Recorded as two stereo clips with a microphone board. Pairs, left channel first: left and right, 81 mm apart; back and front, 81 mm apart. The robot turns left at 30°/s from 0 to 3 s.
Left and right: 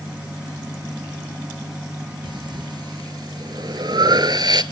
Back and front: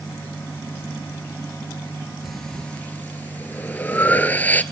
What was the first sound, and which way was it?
Breathing, 90° right.